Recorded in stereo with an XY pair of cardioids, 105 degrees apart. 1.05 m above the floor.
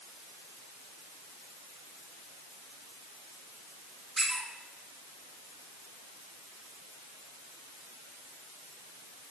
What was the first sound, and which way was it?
A squeak, 20° right.